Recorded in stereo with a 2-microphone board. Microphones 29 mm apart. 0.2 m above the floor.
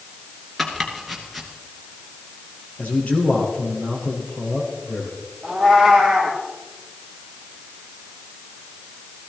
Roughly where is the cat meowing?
Centre.